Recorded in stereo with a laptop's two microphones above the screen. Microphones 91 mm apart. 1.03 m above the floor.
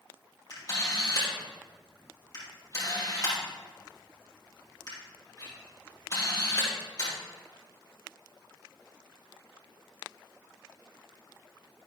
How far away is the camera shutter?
About 4.5 m.